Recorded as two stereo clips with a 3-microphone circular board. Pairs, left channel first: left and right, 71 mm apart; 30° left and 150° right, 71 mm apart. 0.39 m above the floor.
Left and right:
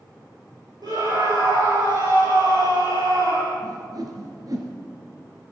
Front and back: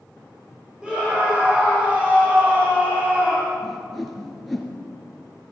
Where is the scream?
70° right, 8 m; by 3.5 s 80° right, 10 m.